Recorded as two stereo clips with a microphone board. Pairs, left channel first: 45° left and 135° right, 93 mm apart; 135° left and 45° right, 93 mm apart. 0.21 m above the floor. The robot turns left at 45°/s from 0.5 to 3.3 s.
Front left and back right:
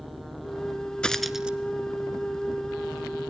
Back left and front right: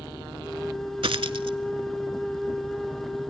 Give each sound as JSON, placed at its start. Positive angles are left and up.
{"t": 1.0, "sound": "a dropped coin", "azimuth_deg": -35, "distance_m": 0.8}